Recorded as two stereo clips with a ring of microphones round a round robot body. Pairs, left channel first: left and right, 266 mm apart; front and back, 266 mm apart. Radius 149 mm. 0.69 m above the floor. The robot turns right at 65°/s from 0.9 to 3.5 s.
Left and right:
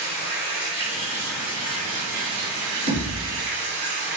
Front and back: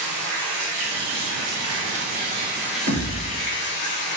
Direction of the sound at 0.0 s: 145° left.